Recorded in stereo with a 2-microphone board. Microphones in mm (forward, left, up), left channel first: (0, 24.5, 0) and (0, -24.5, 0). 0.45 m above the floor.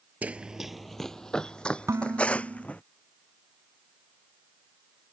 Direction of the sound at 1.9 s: 75° right (ahead or behind).